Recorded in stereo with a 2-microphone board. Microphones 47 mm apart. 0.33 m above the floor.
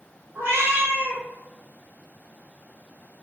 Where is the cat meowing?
70° right (ahead or behind), 1.8 m.